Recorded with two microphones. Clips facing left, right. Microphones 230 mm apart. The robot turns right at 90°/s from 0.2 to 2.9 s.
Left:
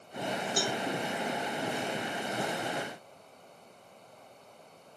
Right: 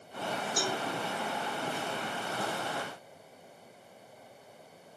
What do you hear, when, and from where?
0.6 s a cowbell: 35° right (ahead or behind), 1.4 m; by 0.8 s 15° right (ahead or behind), 1.4 m